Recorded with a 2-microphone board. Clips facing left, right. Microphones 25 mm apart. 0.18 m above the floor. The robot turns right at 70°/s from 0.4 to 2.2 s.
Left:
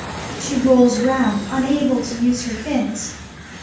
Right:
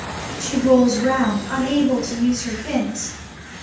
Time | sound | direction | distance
0.4 | a woman speaking | straight behind | 1.9 m